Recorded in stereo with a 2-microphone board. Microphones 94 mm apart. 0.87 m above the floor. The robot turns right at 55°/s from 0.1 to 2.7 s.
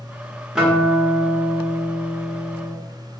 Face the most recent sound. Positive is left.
turn(degrees=110)